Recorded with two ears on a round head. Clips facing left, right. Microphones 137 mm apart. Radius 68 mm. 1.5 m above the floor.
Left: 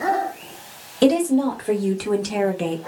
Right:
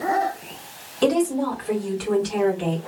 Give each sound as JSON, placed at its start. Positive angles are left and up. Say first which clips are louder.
{"t": 1.0, "sound": "a woman speaking", "louder": "left 3 dB", "side_deg": 40, "distance_m": 1.9}